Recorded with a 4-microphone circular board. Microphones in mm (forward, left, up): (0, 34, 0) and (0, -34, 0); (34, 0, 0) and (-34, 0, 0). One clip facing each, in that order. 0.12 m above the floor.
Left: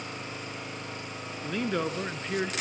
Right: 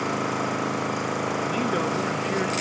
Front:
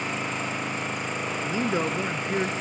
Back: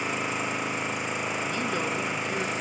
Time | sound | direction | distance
0.0 | an engine running | 95° right | 3 m
1.4 | a man speaking | 10° right | 1.1 m